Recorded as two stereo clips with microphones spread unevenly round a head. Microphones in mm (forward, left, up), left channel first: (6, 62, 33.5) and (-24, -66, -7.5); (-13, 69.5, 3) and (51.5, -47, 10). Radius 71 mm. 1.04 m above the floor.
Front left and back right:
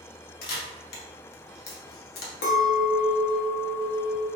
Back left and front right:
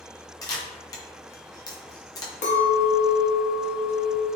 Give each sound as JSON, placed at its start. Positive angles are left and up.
{"t": 0.4, "sound": "a camera shutter", "azimuth_deg": 55, "distance_m": 0.6}
{"t": 2.4, "sound": "a clink", "azimuth_deg": 80, "distance_m": 0.7}